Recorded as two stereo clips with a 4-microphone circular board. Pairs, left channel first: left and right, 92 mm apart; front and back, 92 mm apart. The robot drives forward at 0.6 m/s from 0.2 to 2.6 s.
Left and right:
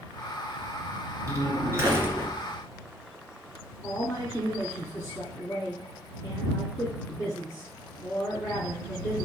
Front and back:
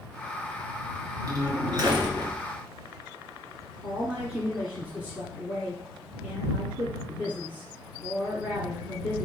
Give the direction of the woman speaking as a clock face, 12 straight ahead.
8 o'clock.